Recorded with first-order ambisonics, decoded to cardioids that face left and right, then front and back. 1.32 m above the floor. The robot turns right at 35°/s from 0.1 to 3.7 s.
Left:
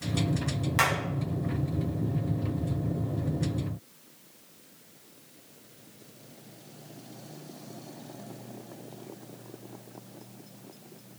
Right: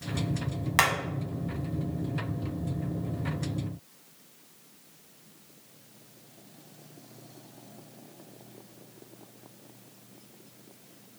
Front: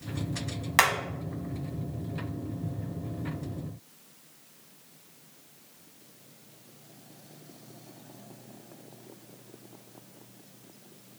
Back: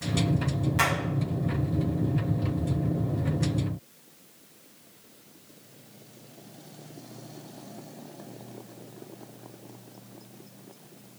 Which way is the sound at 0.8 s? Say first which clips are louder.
Right 2 dB, front 3 dB; 30° right.